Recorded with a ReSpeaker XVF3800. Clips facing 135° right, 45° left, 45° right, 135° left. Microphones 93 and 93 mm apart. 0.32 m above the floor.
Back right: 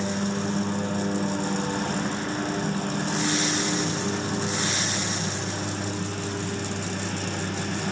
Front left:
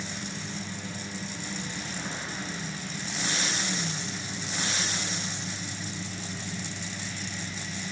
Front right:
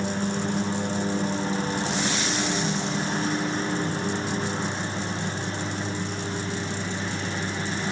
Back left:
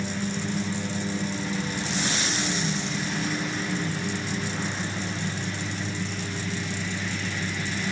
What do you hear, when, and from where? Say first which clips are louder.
0.0 s a lawn mower: back right 11 dB, front right 3 dB; 95° right; by 7.9 s 105° right